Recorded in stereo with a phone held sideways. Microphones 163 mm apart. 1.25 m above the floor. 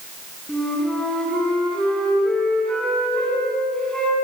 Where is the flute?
5° left (ahead or behind), 7.5 m.